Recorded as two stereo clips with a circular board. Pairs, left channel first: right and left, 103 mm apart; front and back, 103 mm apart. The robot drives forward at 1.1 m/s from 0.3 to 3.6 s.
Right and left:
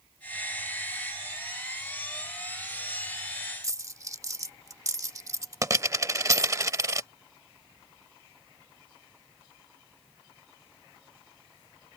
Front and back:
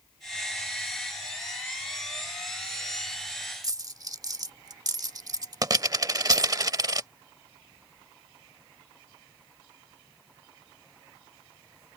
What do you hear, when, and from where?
3.6 s a dropped coin: 140° left